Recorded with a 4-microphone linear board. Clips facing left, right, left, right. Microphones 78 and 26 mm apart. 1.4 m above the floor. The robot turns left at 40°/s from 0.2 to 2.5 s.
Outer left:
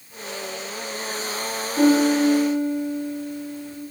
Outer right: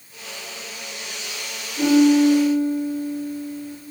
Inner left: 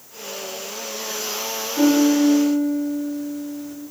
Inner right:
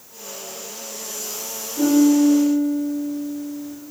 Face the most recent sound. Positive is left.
turn(degrees=40)  # may be behind; listen again after turning